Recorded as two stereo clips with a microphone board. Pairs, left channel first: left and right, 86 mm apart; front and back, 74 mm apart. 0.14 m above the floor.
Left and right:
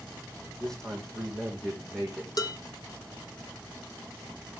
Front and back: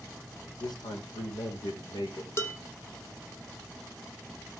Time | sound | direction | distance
0.6 | a man speaking | 5° left | 5 m
2.4 | dishes clattering | 50° left | 3.5 m